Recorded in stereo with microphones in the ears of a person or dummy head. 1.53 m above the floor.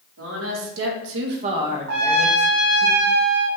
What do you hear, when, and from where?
0.2 s a woman speaking: 80° right, 1.4 m; by 2.9 s 45° left (ahead or behind), 1.3 m
1.9 s a trumpet: 60° right (ahead or behind), 0.5 m